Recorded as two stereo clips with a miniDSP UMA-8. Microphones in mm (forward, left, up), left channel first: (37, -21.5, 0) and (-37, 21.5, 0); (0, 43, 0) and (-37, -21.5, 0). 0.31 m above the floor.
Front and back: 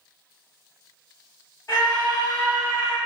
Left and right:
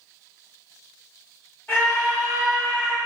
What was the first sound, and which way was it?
A scream, 10° left.